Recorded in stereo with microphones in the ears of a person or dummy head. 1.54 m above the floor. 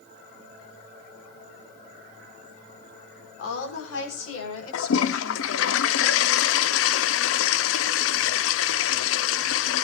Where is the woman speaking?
85° left, 5 m.